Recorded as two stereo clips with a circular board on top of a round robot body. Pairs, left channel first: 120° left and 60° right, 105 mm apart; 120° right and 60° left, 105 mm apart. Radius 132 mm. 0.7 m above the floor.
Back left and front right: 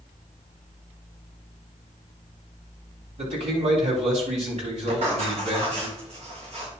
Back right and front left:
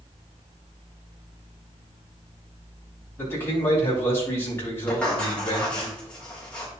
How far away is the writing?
About 4 m.